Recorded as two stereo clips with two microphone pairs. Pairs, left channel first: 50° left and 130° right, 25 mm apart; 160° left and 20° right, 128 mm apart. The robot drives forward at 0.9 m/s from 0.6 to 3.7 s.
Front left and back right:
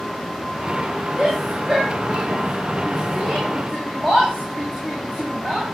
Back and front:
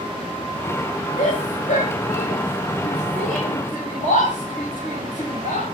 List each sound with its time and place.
1.2 s a shout: 165° left, 6.5 m; by 5.7 s 170° left, 8.5 m